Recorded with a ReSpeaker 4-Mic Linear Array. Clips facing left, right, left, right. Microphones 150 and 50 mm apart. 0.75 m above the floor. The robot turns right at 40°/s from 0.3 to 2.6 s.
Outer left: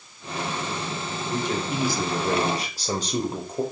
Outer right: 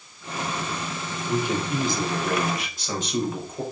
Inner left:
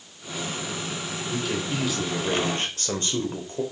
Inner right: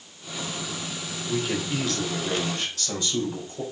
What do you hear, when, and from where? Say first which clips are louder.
1.3 s a man speaking: outer right 2 dB, inner right 2 dB; 15° right, 3 m; by 3.6 s 35° left, 3 m